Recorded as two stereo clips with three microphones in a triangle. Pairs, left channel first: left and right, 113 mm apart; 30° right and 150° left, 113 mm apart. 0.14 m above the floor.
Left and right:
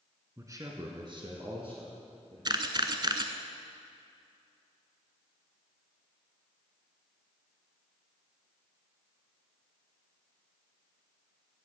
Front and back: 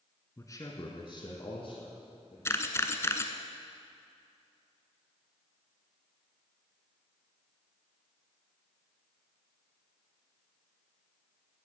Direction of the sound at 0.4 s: 60° right.